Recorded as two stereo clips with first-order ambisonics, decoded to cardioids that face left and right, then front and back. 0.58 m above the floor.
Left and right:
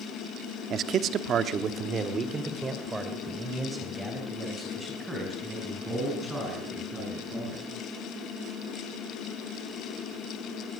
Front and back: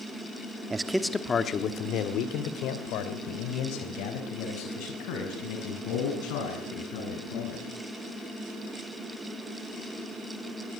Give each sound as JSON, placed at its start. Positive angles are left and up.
{"t": 0.7, "sound": "a man speaking", "azimuth_deg": -115, "distance_m": 1.2}